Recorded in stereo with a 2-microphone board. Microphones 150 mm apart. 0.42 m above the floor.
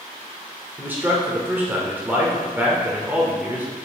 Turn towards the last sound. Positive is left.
turn(degrees=-10)  # may be behind; listen again after turning